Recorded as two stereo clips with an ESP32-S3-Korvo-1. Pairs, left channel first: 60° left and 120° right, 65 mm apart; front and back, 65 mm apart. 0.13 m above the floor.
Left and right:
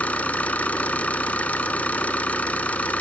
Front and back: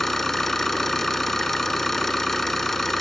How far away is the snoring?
I don't hear snoring.